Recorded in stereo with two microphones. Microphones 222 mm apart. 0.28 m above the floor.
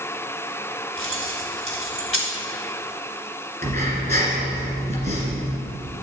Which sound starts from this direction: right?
Breathing, at 3.6 s.